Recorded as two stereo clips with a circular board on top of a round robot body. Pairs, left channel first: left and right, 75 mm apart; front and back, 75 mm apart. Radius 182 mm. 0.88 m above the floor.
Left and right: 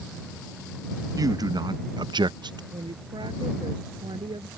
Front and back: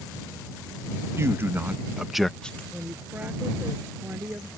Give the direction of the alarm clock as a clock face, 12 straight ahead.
I don't hear an alarm clock.